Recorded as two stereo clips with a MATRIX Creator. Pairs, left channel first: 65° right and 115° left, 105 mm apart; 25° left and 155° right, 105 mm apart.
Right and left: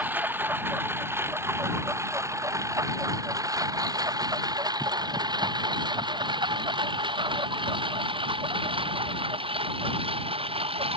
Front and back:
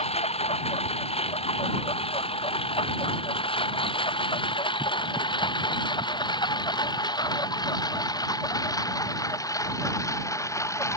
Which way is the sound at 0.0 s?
40° left.